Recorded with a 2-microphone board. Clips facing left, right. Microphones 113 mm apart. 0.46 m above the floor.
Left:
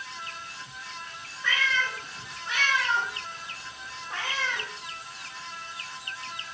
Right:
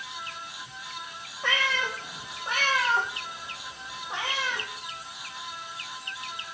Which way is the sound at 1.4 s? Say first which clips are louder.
Even; 65° right (ahead or behind).